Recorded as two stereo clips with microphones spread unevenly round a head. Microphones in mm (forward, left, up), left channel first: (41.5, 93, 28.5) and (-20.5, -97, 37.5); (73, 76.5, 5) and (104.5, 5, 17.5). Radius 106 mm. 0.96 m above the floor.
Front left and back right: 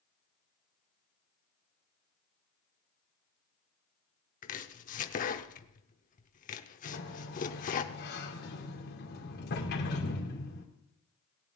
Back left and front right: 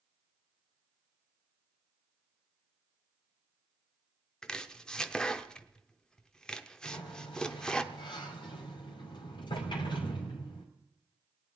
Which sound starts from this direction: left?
A sliding door, at 6.8 s.